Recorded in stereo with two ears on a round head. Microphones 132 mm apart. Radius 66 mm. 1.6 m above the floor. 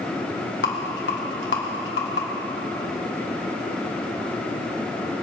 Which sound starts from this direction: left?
A rattle, at 0.6 s.